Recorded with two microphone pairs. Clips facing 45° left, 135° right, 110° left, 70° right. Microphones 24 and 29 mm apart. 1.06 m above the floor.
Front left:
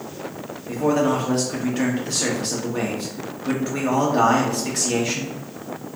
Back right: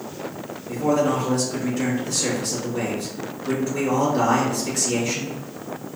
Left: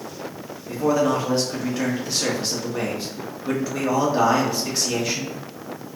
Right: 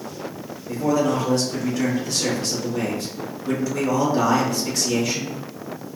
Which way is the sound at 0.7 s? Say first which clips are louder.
Front left 1 dB, left 1 dB; 40° left.